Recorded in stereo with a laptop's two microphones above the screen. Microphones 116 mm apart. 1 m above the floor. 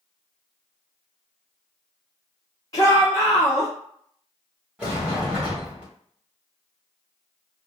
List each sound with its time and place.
2.7 s a shout: 25° left (ahead or behind), 0.7 m
4.8 s a sliding door: 10° right (ahead or behind), 1.2 m